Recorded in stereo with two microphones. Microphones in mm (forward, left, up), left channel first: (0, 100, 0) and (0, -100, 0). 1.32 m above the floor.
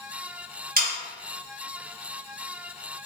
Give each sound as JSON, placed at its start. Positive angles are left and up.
{"t": 0.8, "sound": "sawing", "side_deg": -50, "distance_m": 0.9}